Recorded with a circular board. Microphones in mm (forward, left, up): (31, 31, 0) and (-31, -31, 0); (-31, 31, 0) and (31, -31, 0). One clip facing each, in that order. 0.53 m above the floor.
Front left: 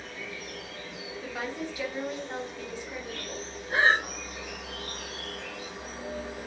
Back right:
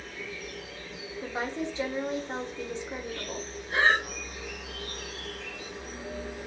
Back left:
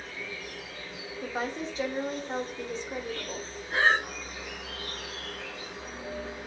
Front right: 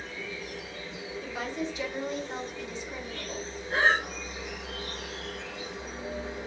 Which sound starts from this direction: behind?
A woman speaking, at 1.2 s.